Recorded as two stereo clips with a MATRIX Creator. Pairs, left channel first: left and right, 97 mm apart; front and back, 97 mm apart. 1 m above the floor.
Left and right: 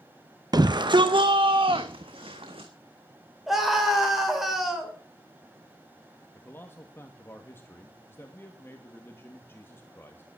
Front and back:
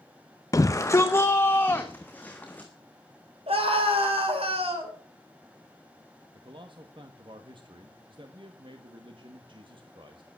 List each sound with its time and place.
0.5 s a shout: 50° right, 0.6 m; by 2.7 s 75° right, 1.6 m
3.5 s a scream: straight behind, 4.5 m
6.3 s a man speaking: 155° left, 1.5 m